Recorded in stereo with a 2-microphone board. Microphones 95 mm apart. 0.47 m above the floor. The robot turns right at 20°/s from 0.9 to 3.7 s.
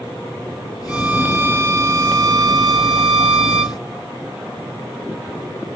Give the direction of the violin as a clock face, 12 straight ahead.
6 o'clock.